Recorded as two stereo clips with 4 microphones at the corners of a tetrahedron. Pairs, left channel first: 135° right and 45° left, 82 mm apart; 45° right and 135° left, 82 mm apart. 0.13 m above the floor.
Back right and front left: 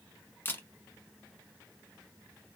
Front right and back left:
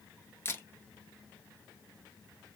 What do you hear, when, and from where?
0.5 s a camera shutter: 85° right, 1.0 m